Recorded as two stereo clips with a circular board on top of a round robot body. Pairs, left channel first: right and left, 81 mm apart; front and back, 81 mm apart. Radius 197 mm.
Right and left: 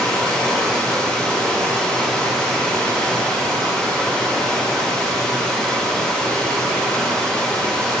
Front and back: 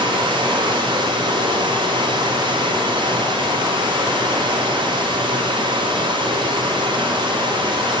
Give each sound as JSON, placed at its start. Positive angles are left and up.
{"t": 0.0, "sound": "running water", "azimuth_deg": -175, "distance_m": 1.6}